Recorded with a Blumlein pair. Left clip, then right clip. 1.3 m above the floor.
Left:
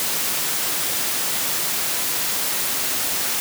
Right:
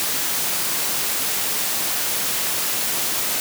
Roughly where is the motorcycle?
I don't hear a motorcycle.